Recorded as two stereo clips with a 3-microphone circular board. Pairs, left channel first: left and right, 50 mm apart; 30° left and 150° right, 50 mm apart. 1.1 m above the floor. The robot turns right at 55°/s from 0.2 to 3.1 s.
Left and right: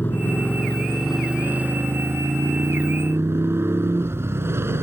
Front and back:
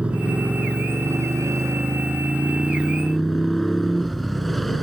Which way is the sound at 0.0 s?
140° left.